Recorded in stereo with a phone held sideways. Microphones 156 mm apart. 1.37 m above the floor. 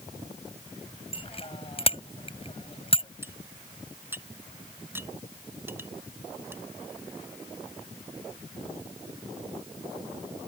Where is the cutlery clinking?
15° right (ahead or behind).